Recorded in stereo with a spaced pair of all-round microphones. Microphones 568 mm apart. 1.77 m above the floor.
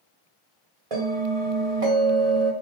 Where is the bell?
60° right (ahead or behind), 1.4 m.